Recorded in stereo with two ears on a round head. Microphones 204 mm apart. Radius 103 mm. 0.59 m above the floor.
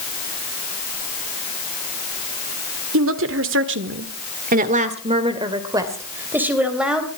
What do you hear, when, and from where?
2.9 s a woman speaking: 65° right (ahead or behind), 2.0 m; by 7.1 s 5° right (ahead or behind), 3.5 m